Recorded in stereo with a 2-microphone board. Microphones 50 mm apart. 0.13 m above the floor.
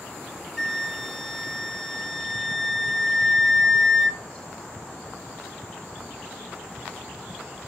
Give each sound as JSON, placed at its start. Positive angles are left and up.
{"t": 0.6, "sound": "a flute", "side_deg": 5, "distance_m": 0.7}